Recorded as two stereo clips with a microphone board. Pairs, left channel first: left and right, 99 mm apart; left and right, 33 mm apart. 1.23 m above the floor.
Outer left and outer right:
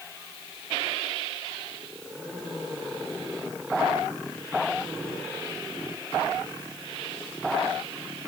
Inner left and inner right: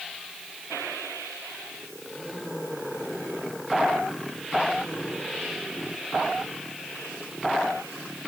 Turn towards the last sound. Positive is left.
No sound to turn to.